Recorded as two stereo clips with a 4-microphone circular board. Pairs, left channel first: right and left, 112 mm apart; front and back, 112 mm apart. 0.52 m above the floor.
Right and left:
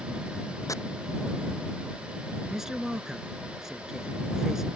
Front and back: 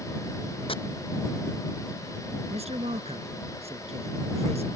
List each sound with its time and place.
0.7 s chopping: 30° right
2.5 s a man speaking: 175° left